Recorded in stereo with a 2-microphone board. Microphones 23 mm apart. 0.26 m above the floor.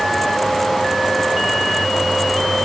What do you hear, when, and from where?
Only background noise.